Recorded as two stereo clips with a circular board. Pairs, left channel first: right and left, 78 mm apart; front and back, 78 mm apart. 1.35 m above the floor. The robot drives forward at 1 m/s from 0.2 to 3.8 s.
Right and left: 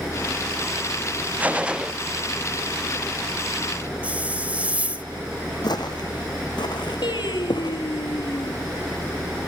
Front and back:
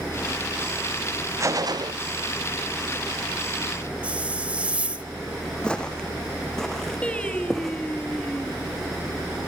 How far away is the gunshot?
About 0.5 m.